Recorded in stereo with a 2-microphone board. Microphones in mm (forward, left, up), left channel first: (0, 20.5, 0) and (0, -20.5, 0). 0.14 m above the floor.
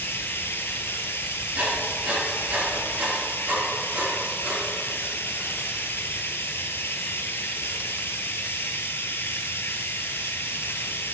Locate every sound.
0.0 s running water: 70° left (ahead or behind), 1.1 m
1.6 s writing: 45° right (ahead or behind), 4 m